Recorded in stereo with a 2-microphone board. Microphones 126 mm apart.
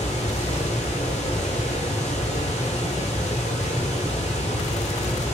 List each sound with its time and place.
0.0 s running water: 60° left (ahead or behind), 1.2 m